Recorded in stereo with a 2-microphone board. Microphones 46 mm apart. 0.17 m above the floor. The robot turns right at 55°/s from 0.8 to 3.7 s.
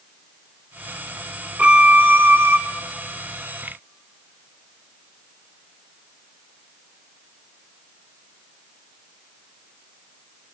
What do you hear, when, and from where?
1.6 s a violin: 145° right, 1.1 m; by 2.6 s 90° right, 1.1 m